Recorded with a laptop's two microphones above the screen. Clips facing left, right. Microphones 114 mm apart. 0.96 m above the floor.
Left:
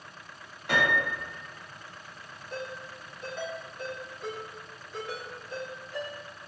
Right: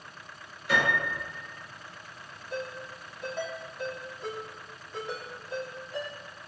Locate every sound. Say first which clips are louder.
0.7 s a piano: left 1 dB; 55° left (ahead or behind), 1.4 m
2.5 s a ringtone: right 2 dB; centre (ahead or behind), 1.6 m